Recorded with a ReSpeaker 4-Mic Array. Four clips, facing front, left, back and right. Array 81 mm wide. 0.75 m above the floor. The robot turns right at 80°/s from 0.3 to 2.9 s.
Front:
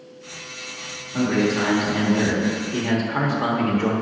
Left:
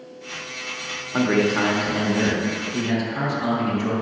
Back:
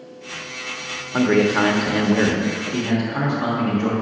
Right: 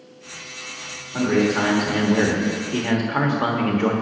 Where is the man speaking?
140° left, 1.3 m; by 3.9 s 80° right, 1.3 m.